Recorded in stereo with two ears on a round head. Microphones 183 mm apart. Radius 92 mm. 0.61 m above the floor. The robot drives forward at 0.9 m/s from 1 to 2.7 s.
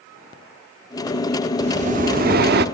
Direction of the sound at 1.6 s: 35° right (ahead or behind).